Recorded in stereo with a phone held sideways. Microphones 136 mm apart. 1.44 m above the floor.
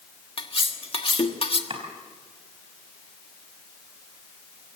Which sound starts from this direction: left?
Cutlery clinking, at 0.4 s.